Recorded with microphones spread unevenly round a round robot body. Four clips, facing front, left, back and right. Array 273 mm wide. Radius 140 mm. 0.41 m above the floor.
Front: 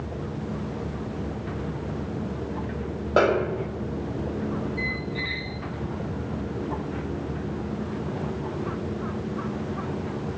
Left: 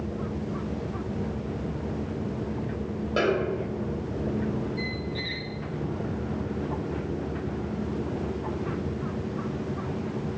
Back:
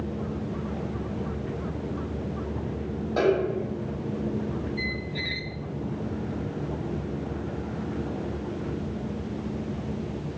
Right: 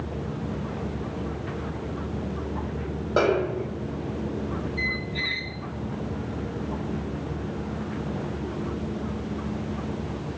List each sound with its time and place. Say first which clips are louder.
3.2 s a snare drum: right 3 dB, front 2 dB; 15° right, 1.7 m
4.8 s a squeak: right 1 dB, front 2 dB; 175° left, 0.7 m